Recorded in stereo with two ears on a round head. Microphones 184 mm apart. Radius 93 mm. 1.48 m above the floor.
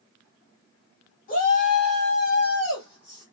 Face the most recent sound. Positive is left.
turn(degrees=25)  # may be behind; listen again after turning